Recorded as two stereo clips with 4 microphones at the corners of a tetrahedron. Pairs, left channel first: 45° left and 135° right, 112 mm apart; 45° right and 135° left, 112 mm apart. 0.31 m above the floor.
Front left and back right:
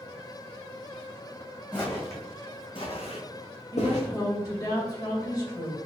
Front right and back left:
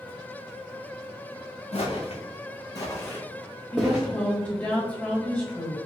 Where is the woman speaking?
20° left, 1.5 m.